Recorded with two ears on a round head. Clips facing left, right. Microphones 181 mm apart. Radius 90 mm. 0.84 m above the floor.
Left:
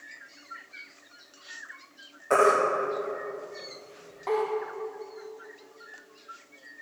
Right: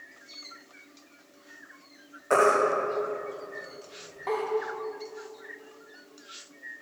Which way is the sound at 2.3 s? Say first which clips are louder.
Even; centre (ahead or behind).